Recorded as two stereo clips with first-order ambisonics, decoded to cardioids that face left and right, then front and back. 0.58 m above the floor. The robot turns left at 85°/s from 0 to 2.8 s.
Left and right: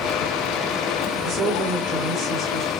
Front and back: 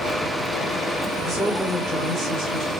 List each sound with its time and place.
1.2 s a woman speaking: 50° right, 2 m; by 2.7 s 175° right, 2 m